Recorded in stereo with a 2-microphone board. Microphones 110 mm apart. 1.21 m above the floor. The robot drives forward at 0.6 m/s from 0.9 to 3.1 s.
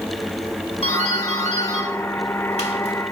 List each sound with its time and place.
0.8 s a doorbell: 70° left (ahead or behind), 2.5 m; by 3.0 s 65° left (ahead or behind), 2.5 m